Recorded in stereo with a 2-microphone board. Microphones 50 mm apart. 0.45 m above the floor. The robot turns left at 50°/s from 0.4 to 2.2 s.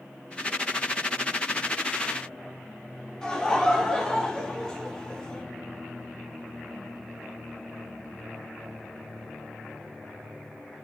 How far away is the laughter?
About 4.5 m.